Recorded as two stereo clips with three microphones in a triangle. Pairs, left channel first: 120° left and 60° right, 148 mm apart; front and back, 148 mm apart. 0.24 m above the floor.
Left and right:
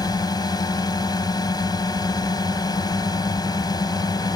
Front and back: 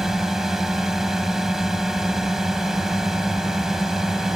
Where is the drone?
95° left.